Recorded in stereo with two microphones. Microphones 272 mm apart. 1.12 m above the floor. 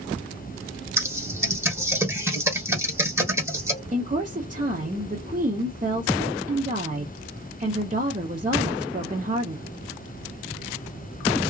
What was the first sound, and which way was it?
Typing on a keyboard, 10° right (ahead or behind).